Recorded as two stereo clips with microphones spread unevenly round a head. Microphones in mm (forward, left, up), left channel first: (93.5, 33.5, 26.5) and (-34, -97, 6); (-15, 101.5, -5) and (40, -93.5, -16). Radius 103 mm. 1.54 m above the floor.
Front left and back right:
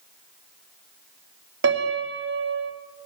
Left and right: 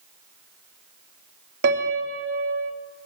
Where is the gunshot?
I don't hear a gunshot.